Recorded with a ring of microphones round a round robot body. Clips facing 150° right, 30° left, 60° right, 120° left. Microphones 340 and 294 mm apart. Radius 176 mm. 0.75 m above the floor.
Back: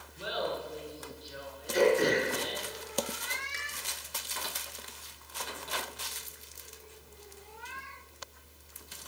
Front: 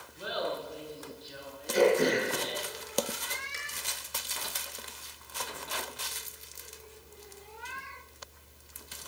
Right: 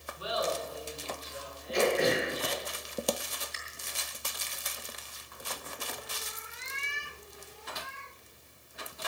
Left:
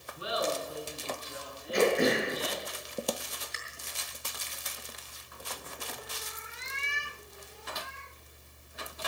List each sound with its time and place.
0.2 s laughter: 115° left, 8 m; by 2.7 s 140° left, 9 m
1.7 s throat clearing: 120° left, 6 m